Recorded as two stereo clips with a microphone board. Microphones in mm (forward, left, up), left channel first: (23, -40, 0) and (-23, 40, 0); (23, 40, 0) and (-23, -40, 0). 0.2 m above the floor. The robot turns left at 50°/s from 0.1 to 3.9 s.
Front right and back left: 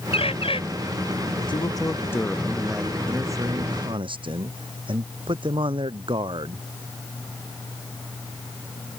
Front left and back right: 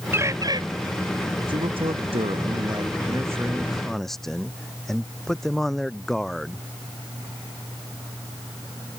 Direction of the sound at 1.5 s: 90° right.